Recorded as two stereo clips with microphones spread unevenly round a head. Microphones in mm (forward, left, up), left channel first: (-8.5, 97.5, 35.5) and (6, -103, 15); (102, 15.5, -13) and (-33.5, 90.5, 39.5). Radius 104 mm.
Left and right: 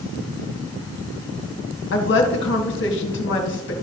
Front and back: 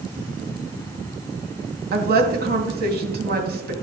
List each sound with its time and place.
1.9 s a woman speaking: 125° left, 1.9 m